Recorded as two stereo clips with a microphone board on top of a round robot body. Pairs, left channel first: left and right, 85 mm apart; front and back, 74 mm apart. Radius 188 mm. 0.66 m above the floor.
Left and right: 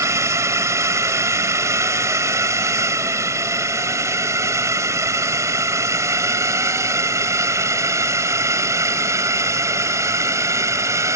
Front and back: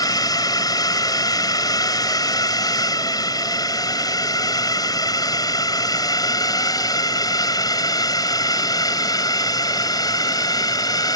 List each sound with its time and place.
0.0 s a drone: 35° right